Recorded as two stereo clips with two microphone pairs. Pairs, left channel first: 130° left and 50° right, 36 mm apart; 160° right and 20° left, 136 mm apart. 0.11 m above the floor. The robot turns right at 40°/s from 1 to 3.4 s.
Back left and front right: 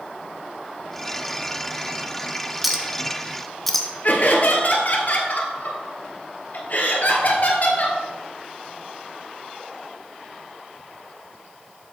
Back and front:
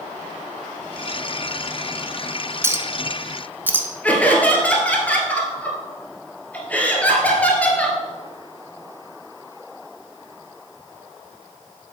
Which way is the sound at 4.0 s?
120° left.